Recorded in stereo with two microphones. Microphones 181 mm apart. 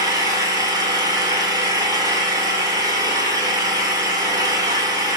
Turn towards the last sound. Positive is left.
turn(degrees=-20)  # may be behind; listen again after turning